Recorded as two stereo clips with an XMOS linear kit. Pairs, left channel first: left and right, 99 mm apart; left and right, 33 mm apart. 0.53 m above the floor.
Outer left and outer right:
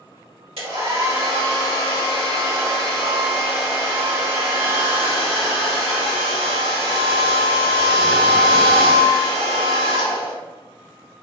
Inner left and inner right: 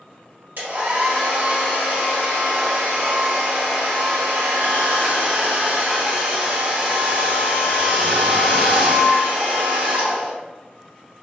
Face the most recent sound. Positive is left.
turn(degrees=-70)  # may be behind; listen again after turning